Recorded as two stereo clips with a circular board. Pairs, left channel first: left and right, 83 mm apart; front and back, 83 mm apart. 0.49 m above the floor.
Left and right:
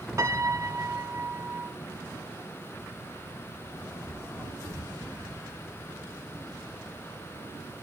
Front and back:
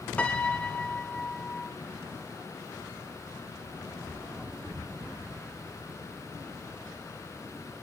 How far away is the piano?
About 0.9 m.